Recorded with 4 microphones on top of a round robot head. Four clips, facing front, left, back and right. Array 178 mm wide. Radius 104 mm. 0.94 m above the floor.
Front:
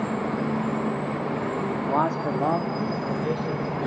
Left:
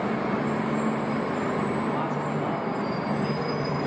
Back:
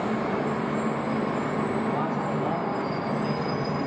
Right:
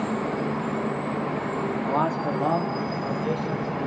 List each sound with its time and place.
1.8 s a man speaking: 30° right, 2.5 m; by 3.7 s 40° right, 4.5 m